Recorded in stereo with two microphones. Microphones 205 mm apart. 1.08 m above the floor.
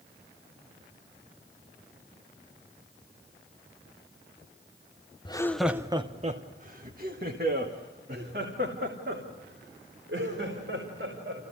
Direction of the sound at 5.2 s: 25° left (ahead or behind).